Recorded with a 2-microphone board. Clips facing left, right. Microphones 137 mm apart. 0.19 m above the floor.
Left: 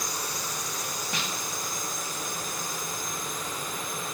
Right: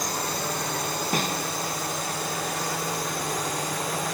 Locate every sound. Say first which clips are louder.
0.0 s a drone: right 6 dB; 60° right (ahead or behind); by 4.2 s 75° right (ahead or behind)
1.1 s a snare drum: right 9 dB; 45° right (ahead or behind)